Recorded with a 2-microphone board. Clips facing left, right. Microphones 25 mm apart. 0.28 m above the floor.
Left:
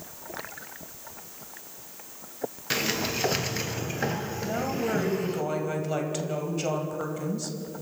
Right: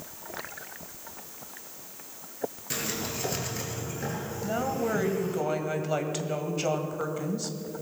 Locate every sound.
2.7 s a sliding door: 40° left (ahead or behind), 1.3 m
4.4 s a woman speaking: 5° right (ahead or behind), 1.8 m